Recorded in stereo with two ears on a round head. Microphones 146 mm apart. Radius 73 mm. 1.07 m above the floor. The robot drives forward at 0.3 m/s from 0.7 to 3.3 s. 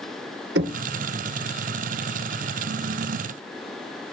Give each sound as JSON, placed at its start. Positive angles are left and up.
{"t": 0.6, "sound": "knocking", "side_deg": -85, "distance_m": 1.5}